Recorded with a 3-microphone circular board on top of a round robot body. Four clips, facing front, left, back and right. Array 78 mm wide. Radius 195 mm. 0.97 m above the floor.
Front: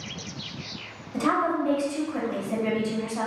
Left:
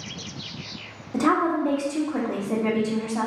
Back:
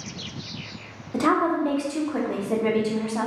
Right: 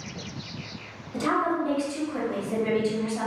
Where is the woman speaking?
145° left, 1.2 m.